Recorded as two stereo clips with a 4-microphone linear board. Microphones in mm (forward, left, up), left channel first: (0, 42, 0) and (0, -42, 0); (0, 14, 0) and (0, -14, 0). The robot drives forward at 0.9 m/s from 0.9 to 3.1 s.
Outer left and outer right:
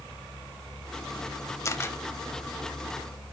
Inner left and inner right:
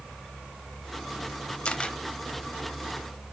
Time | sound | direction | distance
1.6 | a camera shutter | 35° left (ahead or behind) | 0.6 m